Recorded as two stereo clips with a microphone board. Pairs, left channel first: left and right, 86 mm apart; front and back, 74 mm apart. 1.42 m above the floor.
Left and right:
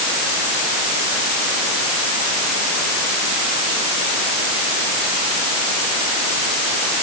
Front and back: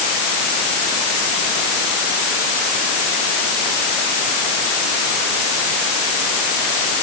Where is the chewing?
I don't hear chewing.